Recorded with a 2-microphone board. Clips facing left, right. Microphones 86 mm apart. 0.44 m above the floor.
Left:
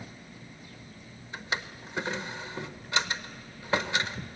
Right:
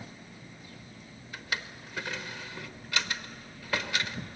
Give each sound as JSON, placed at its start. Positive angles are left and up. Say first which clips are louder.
{"t": 1.3, "sound": "a drawer", "louder": "left 2 dB", "side_deg": 25, "distance_m": 0.7}